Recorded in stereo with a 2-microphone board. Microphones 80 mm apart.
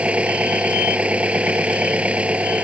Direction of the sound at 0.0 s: 15° right (ahead or behind).